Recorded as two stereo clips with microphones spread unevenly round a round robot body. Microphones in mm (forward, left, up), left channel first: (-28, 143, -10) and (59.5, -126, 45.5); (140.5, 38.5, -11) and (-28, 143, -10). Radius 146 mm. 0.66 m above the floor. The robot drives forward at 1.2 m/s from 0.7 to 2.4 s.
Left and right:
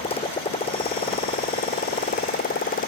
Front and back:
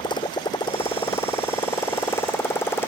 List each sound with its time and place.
0.0 s a motorcycle: 35° left; by 2.9 s 45° left